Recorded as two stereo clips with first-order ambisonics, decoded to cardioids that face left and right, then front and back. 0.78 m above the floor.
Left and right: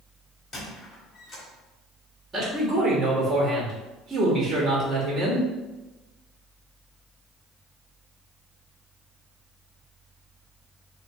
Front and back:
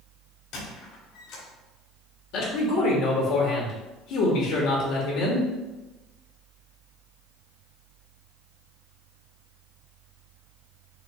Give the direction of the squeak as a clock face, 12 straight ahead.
11 o'clock.